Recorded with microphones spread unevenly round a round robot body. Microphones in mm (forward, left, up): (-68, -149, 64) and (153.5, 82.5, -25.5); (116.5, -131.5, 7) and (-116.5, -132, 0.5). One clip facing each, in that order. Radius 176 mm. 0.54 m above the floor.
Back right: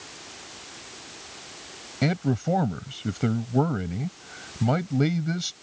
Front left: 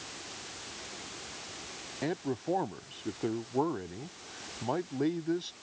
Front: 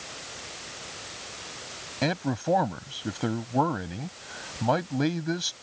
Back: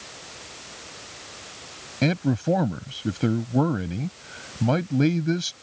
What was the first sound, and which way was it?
A man speaking, 125° right.